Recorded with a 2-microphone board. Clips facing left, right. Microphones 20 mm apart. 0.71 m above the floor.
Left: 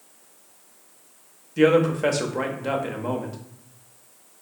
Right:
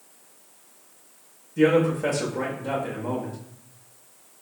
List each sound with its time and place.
1.6 s a man speaking: 45° left (ahead or behind), 0.6 m